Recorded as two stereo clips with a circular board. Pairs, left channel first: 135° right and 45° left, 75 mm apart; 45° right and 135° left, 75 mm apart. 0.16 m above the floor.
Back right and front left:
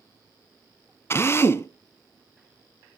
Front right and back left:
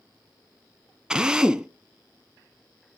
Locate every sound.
1.1 s a drill: 150° right, 0.8 m